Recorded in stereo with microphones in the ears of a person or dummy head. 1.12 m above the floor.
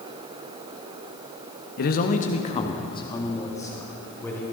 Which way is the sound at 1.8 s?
55° left (ahead or behind).